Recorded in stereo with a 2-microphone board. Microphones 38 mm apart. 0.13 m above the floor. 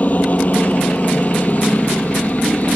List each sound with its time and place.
0.0 s a helicopter: 45° left (ahead or behind)